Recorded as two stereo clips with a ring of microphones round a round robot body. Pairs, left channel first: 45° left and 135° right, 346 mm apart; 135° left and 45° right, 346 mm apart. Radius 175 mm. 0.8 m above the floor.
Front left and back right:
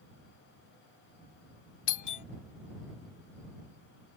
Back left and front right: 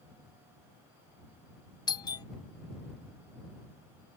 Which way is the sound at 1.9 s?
60° left.